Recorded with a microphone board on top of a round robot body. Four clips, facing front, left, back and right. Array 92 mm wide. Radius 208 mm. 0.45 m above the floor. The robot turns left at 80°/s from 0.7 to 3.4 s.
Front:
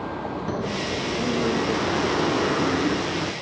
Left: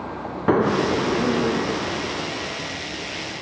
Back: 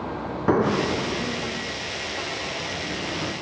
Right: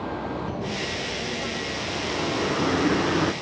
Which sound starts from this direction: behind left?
A bird, at 0.5 s.